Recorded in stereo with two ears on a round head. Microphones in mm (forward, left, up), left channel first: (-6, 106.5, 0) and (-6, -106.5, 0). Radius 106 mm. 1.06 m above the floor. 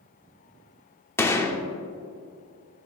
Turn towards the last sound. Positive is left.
turn(degrees=10)  # may be behind; listen again after turning